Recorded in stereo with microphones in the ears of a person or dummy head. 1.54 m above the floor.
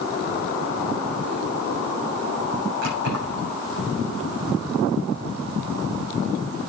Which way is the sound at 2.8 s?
70° right (ahead or behind).